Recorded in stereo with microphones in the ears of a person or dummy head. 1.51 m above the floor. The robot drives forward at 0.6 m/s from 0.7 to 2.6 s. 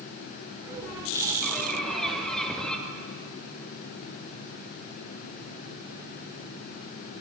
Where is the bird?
5° left (ahead or behind), 3.5 m.